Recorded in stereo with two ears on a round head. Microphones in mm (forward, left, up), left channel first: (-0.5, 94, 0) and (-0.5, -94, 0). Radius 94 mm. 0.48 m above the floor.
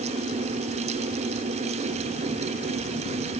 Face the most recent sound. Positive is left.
No sound to turn to.